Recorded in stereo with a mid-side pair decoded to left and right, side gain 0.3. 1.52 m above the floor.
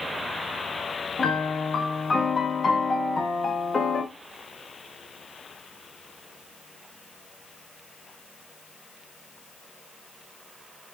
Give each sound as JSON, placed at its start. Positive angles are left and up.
{"t": 1.2, "sound": "a piano", "azimuth_deg": 50, "distance_m": 0.9}